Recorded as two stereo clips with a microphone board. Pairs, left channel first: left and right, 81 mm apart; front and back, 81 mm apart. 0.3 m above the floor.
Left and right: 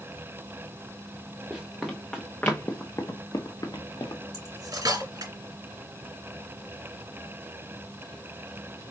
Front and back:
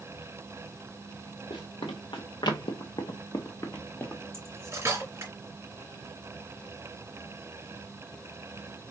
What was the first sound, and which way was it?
Running footsteps, 5° right.